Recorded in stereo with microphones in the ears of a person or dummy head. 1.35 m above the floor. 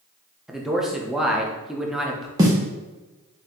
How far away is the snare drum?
About 0.9 m.